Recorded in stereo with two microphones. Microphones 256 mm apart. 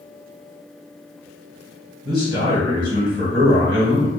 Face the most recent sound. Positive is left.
turn(degrees=-45)  # may be behind; listen again after turning